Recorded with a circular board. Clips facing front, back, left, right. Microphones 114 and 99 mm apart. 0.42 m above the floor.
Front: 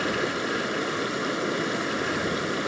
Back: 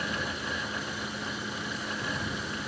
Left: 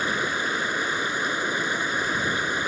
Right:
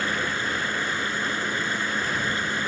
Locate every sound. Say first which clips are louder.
0.0 s running water: front 8 dB, left 1 dB; 15° left